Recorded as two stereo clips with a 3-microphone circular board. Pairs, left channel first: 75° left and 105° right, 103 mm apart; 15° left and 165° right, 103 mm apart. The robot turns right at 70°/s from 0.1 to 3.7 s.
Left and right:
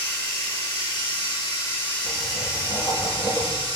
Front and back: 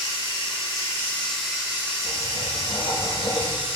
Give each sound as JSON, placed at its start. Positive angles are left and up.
{"t": 0.0, "sound": "running water", "azimuth_deg": 10, "distance_m": 1.4}
{"t": 2.0, "sound": "writing", "azimuth_deg": -80, "distance_m": 1.5}